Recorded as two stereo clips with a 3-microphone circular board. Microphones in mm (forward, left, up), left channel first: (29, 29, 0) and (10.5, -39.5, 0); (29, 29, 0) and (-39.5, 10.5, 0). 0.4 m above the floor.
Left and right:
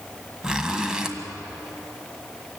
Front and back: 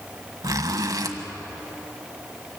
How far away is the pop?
No pop in this recording.